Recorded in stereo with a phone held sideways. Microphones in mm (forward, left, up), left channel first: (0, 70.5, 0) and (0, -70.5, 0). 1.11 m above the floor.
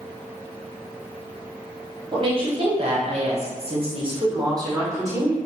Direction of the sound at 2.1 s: 35° right (ahead or behind).